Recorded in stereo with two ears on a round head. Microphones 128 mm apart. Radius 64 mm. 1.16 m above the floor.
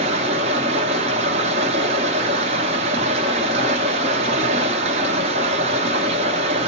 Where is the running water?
45° right (ahead or behind), 1.0 m.